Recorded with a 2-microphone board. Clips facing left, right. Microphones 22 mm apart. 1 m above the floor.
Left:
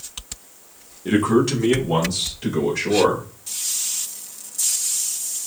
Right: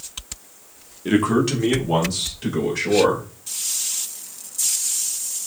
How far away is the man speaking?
About 0.7 m.